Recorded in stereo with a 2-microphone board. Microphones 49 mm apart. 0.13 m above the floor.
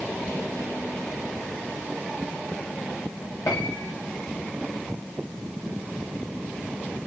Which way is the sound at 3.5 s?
80° left.